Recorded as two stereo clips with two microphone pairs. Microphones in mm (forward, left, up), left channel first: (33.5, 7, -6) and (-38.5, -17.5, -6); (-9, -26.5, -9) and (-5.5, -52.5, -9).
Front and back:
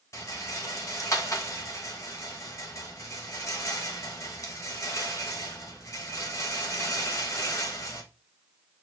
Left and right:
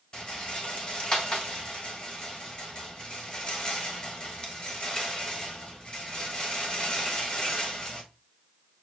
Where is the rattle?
50° left, 1.0 m.